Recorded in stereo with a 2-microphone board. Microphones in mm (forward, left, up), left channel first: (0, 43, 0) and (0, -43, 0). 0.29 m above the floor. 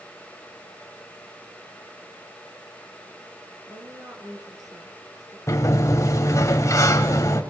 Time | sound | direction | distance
3.7 | a woman speaking | 40° right (ahead or behind) | 4 m
5.5 | a sliding door | 35° left (ahead or behind) | 1.8 m